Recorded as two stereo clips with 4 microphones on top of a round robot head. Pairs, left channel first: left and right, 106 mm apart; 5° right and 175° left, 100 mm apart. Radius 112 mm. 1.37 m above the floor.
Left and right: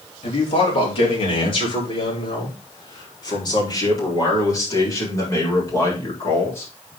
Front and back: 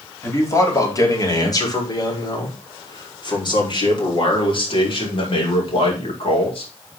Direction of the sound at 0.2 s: 55° left.